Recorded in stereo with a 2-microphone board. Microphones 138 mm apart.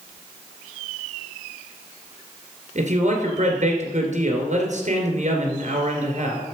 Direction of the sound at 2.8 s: 55° right (ahead or behind).